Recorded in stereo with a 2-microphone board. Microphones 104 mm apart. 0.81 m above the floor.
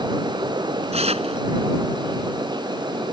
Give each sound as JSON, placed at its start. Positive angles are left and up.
{"t": 0.9, "sound": "tearing paper", "side_deg": -85}